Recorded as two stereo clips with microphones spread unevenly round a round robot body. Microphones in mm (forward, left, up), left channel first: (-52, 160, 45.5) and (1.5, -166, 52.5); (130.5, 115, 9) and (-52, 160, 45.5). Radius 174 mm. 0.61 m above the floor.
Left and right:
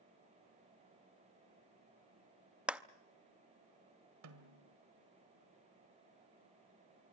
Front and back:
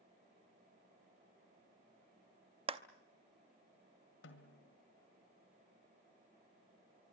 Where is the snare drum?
40° right, 1.8 m.